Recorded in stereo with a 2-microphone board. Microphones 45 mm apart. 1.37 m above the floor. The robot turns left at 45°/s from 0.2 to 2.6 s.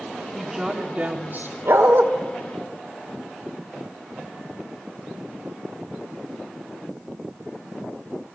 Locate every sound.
0.3 s a woman speaking: straight ahead, 1.9 m; by 1.6 s 55° right, 1.9 m
1.6 s a dog barking: 65° right (ahead or behind), 2 m; by 2.0 s 50° right (ahead or behind), 2 m